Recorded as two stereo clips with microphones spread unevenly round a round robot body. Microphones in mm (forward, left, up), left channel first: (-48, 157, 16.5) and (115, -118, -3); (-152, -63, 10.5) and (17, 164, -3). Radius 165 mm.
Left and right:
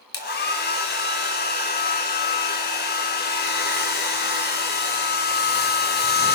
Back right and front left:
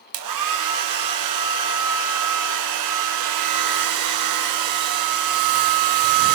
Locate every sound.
0.1 s a hair dryer: 60° left, 3 m